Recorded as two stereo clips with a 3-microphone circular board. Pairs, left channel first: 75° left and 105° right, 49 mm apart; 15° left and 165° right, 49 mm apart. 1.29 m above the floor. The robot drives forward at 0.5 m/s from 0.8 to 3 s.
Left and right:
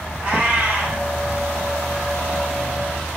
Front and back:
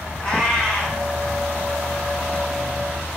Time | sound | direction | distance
0.2 | a cat meowing | 60° right | 1.1 m